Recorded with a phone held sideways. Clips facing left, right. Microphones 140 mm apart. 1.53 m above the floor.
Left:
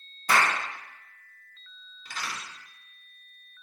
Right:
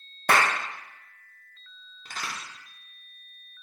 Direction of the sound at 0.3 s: 65° right (ahead or behind).